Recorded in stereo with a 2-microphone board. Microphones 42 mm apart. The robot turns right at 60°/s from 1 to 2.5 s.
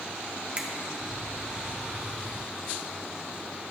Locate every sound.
0.6 s a finger snap: 30° right (ahead or behind), 1.1 m